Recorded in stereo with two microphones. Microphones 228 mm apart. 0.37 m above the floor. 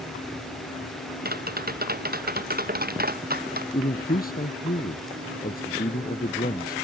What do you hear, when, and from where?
1.2 s tapping: 40° right (ahead or behind)
3.7 s a man speaking: 40° left (ahead or behind)